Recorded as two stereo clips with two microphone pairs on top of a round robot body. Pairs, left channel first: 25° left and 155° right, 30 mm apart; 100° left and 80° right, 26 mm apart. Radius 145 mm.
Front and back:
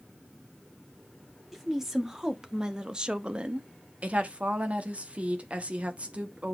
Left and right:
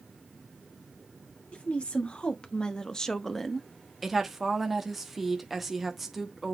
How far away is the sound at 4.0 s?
About 1.5 m.